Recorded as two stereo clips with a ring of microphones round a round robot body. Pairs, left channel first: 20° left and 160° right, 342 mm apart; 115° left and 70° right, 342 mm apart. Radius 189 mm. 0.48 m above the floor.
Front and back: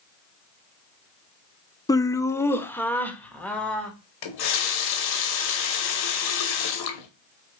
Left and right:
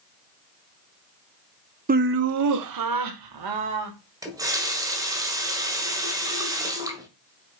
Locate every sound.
1.9 s laughter: 45° right, 0.7 m; by 3.9 s 65° right, 2.5 m
4.2 s a running tap: 15° left, 1.8 m